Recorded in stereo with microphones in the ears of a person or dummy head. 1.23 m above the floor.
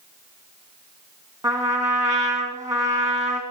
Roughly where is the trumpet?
Centre.